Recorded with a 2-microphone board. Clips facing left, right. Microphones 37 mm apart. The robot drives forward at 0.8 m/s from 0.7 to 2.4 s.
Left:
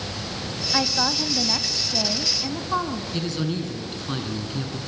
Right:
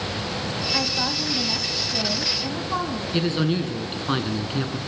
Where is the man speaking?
35° right (ahead or behind), 2.5 m.